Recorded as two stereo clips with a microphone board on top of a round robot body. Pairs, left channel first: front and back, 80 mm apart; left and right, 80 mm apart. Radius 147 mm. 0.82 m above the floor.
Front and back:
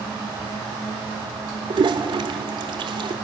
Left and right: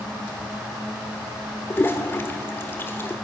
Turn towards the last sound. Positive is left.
turn(degrees=155)